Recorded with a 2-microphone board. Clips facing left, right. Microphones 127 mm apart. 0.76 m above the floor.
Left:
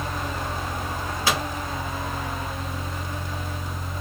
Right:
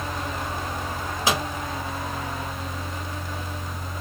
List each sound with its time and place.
1.3 s a microwave: 20° right (ahead or behind), 1.5 m